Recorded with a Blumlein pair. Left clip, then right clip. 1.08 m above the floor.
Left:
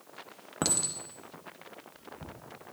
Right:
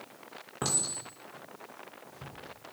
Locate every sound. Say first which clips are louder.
0.6 s a clink: left 1 dB; 70° left, 1.1 m